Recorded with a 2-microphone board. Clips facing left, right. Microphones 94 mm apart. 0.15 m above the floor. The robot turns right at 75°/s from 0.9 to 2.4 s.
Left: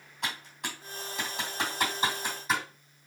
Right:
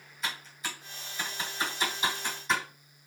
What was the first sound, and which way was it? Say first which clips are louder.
Typing on a keyboard: left 1 dB; 60° left (ahead or behind).